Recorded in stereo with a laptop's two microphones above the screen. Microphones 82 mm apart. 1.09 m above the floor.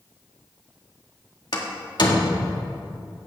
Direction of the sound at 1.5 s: 60° left (ahead or behind).